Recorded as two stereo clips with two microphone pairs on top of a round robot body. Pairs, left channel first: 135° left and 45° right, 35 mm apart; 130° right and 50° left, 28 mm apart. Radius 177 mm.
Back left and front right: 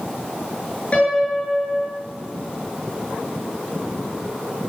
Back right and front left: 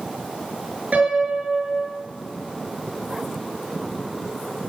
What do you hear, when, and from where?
0.9 s a piano: 80° left, 7 m